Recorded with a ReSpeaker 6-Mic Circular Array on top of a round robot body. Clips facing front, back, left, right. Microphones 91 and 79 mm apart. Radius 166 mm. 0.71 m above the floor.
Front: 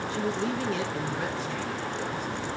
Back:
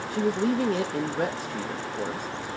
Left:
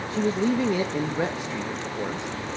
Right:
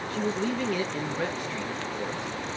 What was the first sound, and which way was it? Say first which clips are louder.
A man speaking: back 6 dB, left 5 dB; 150° left.